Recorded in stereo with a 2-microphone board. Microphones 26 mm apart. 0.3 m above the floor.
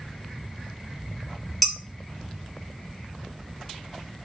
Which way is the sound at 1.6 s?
5° left (ahead or behind).